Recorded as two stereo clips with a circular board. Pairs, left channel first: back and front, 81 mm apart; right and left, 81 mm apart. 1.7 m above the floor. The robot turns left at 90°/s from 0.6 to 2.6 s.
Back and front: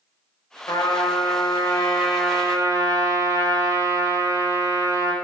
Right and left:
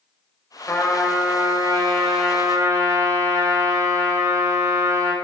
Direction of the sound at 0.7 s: 145° right.